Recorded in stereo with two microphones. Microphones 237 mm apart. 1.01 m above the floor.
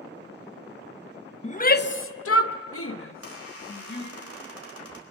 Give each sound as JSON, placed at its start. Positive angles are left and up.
{"t": 1.4, "sound": "a shout", "side_deg": 30, "distance_m": 0.9}
{"t": 3.1, "sound": "a squeak", "side_deg": 80, "distance_m": 4.0}